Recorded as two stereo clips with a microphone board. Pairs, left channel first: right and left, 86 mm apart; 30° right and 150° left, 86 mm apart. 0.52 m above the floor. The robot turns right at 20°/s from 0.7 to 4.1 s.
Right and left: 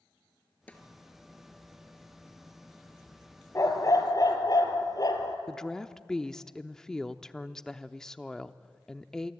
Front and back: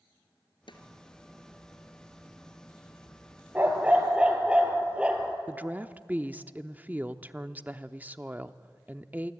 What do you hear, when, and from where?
0.7 s a snare drum: 15° right, 2 m
3.5 s a dog barking: 145° right, 2.5 m; by 5.4 s 130° right, 2.5 m
5.5 s a woman speaking: 165° right, 0.7 m